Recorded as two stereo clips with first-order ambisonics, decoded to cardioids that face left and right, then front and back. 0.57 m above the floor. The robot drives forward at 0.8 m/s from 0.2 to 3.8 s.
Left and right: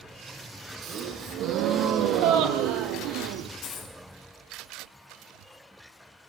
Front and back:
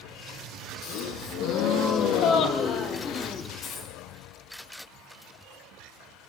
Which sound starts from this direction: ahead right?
A gasp, at 0.8 s.